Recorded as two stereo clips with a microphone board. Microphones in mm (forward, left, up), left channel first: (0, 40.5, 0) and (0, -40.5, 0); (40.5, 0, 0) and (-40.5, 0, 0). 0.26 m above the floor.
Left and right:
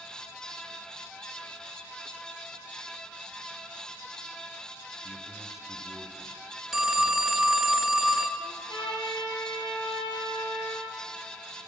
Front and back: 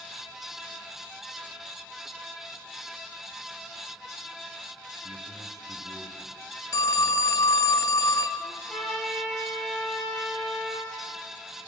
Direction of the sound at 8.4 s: 85° left.